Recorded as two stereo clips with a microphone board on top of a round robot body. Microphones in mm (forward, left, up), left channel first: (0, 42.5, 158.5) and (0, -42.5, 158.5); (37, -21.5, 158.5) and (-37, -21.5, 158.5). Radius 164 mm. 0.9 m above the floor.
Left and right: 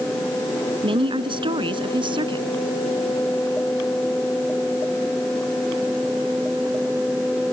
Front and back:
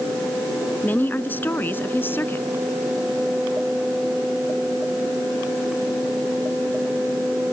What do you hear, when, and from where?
0.8 s a woman speaking: 65° right; by 2.5 s 60° right